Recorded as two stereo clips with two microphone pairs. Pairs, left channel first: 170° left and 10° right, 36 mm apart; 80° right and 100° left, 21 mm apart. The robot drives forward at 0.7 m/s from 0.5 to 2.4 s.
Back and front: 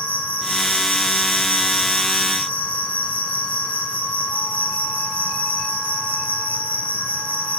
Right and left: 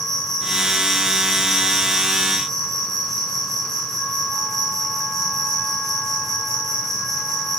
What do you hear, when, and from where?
0.0 s an insect: 160° right, 6 m